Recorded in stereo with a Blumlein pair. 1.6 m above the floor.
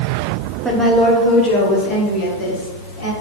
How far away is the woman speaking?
About 1.0 m.